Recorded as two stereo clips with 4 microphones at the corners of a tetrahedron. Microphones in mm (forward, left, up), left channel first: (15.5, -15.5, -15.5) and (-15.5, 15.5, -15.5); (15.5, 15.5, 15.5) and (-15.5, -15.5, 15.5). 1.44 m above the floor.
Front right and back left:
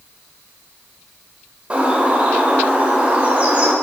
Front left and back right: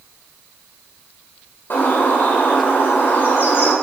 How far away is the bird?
About 3 m.